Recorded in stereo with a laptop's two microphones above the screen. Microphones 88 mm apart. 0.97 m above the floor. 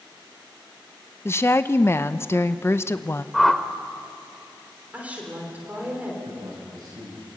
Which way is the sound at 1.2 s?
30° left (ahead or behind).